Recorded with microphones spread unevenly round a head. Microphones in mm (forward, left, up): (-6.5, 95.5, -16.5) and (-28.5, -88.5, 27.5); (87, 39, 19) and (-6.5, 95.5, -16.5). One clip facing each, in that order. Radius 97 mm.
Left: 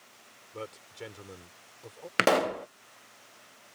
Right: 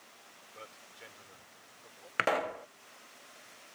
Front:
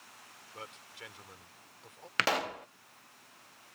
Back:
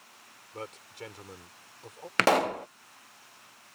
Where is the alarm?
I don't hear an alarm.